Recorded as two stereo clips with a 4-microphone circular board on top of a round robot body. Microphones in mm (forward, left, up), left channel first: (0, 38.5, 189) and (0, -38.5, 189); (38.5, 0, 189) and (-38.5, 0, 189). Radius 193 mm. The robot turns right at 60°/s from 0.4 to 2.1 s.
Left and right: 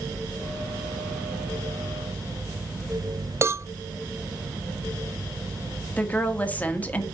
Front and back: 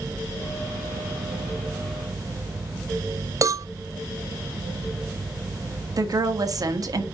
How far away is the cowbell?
About 0.6 m.